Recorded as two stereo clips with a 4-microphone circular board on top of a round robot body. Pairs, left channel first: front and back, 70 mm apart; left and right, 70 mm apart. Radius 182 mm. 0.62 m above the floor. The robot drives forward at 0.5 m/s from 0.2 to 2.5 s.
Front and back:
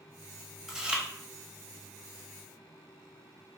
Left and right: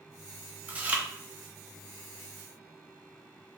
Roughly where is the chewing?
Right.